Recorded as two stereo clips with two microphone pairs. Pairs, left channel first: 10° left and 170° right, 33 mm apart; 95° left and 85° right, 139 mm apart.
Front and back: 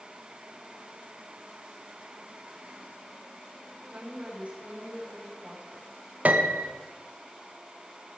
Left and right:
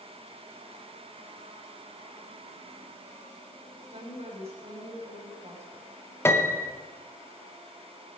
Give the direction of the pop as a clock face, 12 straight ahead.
No pop in this recording.